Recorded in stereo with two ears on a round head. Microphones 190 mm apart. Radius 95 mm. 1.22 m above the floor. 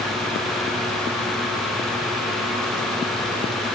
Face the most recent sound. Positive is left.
No sound to turn to.